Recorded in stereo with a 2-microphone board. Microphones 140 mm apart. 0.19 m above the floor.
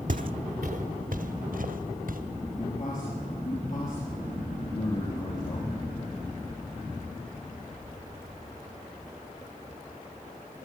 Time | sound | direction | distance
0.1 | footsteps | 70° right (ahead or behind) | 0.5 m
2.6 | a man speaking | 65° left (ahead or behind) | 4.5 m